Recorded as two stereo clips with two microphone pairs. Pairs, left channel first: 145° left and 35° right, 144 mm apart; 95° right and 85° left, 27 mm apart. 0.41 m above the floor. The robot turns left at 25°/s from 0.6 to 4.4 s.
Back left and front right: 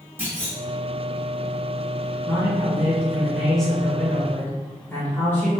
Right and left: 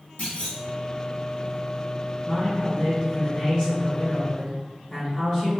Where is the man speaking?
95° right, 1.4 m; by 5.6 s 150° right, 1.4 m.